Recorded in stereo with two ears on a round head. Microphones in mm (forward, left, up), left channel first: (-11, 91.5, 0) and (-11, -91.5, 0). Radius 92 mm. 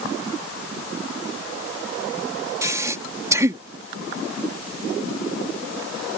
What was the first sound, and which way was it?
Breathing, 15° right (ahead or behind).